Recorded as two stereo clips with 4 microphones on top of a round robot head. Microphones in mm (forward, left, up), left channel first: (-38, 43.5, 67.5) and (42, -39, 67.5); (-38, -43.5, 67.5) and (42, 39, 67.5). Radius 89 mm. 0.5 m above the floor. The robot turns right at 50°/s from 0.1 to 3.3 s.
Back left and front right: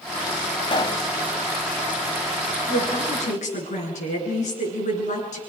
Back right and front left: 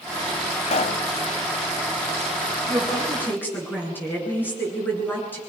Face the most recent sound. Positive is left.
turn(degrees=150)